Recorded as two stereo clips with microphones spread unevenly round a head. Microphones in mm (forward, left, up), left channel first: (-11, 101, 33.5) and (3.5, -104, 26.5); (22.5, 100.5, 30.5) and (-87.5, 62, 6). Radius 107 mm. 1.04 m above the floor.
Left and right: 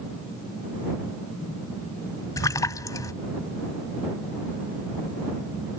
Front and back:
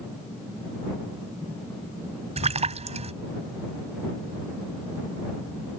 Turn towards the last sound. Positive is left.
turn(degrees=170)